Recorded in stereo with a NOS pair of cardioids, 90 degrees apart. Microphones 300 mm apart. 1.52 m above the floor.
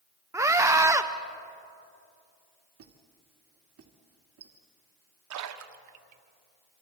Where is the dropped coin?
I don't hear a dropped coin.